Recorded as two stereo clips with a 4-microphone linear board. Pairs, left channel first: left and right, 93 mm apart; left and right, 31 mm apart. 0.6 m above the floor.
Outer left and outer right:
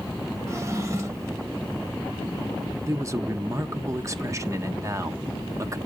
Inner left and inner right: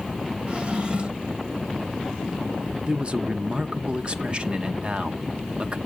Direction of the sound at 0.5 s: 35° right (ahead or behind).